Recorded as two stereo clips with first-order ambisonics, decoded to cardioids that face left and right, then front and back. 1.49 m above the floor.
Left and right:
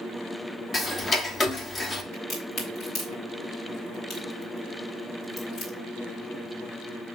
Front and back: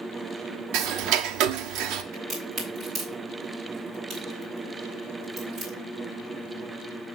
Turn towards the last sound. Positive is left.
turn(degrees=125)